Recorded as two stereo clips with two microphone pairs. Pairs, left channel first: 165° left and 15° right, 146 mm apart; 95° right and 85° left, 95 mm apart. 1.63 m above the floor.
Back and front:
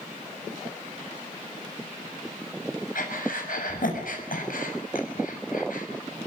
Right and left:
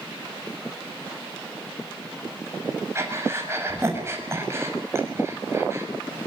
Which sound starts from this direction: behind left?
Breathing, at 3.0 s.